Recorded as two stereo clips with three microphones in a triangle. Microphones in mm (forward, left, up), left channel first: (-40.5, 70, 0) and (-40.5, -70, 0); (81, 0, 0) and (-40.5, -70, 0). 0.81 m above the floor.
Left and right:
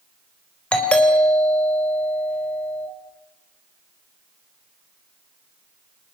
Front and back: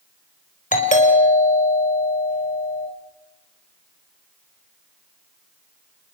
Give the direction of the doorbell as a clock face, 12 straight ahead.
12 o'clock.